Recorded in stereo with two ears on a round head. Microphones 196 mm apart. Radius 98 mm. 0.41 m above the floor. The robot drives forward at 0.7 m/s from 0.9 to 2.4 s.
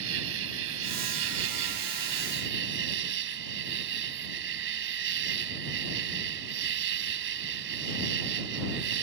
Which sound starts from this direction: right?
An insect, at 0.0 s.